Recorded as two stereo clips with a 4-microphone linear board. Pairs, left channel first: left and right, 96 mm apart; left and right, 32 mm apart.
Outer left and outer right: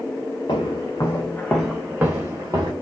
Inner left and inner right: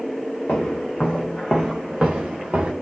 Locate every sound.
0.5 s footsteps: 55° left (ahead or behind), 1.0 m; by 2.7 s 40° right (ahead or behind), 1.1 m